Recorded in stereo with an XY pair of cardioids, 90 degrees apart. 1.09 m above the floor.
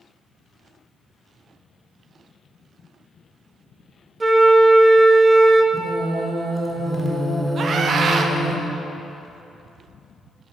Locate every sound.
4.2 s a flute: 30° right, 0.5 m
5.7 s singing: 10° right, 1.0 m
7.6 s a scream: 60° right, 0.6 m